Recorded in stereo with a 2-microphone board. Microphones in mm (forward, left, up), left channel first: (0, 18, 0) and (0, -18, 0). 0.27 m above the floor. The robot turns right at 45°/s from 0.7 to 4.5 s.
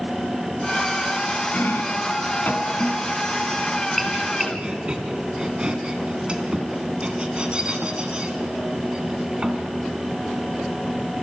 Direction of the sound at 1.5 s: 55° left (ahead or behind).